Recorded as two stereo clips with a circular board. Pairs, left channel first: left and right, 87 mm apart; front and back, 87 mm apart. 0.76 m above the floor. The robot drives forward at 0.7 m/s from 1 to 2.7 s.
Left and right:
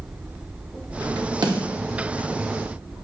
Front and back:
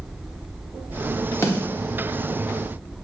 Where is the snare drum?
55° right, 0.7 m; by 1.6 s 65° right, 0.6 m.